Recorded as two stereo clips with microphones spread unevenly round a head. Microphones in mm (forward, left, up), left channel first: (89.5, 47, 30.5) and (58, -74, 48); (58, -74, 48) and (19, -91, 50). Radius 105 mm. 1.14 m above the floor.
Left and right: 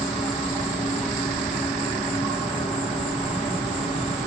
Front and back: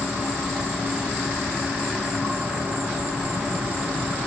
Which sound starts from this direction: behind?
An insect, at 0.0 s.